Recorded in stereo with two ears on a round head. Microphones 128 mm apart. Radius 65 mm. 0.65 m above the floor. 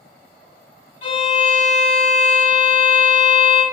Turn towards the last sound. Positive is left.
turn(degrees=45)  # may be behind; listen again after turning